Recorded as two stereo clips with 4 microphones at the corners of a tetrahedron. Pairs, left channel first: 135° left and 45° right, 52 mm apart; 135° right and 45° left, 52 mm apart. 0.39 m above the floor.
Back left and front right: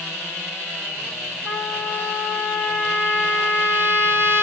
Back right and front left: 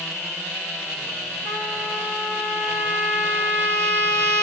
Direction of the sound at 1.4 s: 75° left.